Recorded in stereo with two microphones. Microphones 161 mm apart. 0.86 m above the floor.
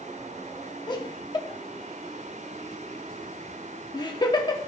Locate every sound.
0.9 s laughter: 30° left (ahead or behind), 1.3 m